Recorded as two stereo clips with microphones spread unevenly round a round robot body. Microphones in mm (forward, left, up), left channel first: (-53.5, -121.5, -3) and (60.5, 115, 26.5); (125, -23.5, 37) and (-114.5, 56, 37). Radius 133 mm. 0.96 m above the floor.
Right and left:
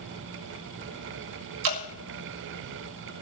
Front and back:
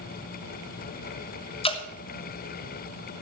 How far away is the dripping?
About 2.5 m.